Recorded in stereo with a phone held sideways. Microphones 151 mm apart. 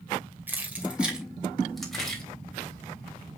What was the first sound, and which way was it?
Keys jangling, 10° right (ahead or behind).